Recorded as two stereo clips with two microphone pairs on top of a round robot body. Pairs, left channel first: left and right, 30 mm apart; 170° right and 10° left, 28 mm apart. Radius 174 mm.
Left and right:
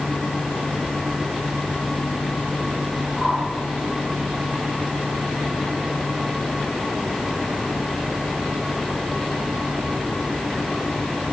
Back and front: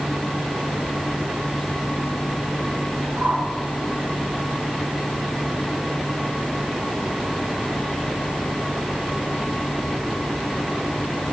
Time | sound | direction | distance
3.1 | a whoosh | straight ahead | 3.5 m